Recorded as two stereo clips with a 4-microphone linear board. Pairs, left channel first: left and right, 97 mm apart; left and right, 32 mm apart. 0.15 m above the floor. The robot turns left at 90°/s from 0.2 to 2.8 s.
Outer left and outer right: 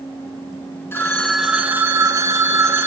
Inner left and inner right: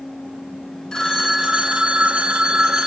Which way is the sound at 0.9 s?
40° left.